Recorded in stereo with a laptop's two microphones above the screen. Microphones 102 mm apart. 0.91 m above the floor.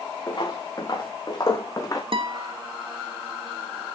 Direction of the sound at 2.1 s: 60° right (ahead or behind).